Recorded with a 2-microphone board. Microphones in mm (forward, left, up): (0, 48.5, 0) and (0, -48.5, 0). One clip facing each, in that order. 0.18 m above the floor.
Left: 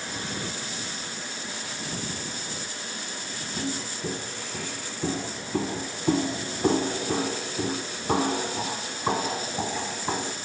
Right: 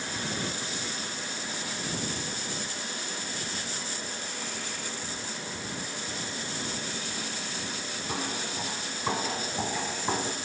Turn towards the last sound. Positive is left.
turn(degrees=0)  # may be behind; listen again after turning